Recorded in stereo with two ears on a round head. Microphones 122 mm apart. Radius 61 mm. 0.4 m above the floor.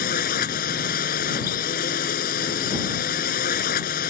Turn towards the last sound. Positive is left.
turn(degrees=70)  # may be behind; listen again after turning